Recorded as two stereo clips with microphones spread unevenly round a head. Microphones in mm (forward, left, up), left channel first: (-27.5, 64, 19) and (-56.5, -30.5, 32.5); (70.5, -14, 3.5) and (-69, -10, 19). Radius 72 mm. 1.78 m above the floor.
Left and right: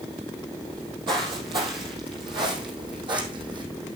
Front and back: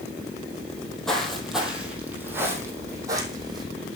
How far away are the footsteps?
About 2.5 m.